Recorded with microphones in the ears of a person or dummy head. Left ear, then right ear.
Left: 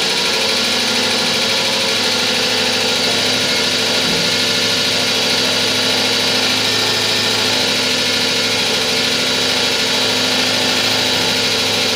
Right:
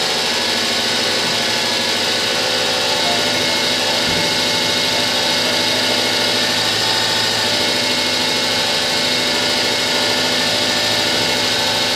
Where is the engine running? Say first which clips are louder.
Left 2 dB; 40° left (ahead or behind), 2.0 m.